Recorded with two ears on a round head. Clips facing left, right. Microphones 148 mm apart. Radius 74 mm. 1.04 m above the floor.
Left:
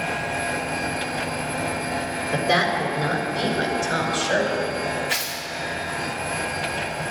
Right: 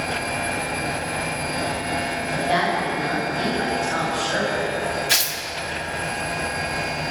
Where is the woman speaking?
60° left (ahead or behind), 4 m.